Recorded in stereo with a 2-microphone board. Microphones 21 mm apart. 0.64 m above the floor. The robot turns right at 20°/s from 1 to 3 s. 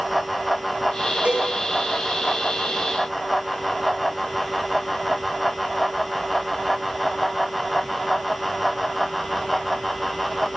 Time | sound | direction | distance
1.2 | a cowbell | 85° right | 10 m